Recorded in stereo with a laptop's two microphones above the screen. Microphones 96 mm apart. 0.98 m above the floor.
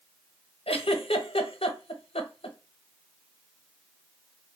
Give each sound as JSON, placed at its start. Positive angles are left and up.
{"t": 0.7, "sound": "a giggle", "side_deg": 85, "distance_m": 0.7}